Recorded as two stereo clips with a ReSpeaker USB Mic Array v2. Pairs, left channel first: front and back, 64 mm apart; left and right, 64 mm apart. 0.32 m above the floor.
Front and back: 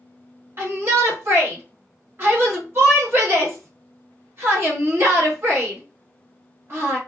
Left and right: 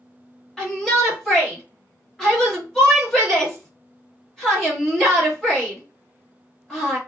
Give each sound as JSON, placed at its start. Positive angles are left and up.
{"t": 0.6, "sound": "a shout", "azimuth_deg": 165, "distance_m": 1.8}